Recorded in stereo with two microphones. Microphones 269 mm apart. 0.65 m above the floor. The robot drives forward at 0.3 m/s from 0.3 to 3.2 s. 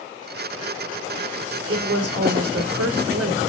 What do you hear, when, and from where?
1.7 s a woman speaking: 65° right (ahead or behind), 1.9 m; by 3.4 s 60° right (ahead or behind), 2 m